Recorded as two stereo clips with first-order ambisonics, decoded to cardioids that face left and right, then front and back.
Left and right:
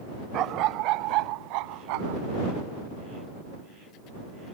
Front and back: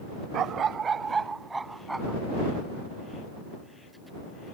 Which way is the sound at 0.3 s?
130° right.